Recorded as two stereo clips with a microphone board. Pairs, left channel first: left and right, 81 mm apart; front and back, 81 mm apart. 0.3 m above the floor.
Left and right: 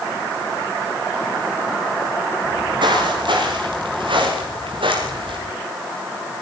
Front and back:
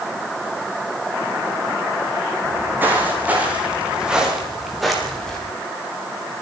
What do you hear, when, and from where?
2.4 s footsteps: 120° right, 7 m; by 5.4 s 85° right, 6 m